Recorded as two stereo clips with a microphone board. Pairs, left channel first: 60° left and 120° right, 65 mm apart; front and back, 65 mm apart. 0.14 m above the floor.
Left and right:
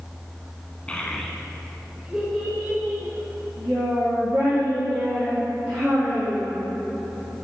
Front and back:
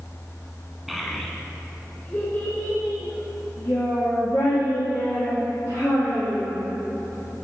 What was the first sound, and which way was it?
A child speaking, 100° left.